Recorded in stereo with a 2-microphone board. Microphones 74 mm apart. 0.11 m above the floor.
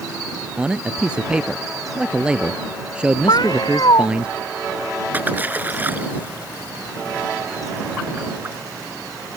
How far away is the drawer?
No drawer in this recording.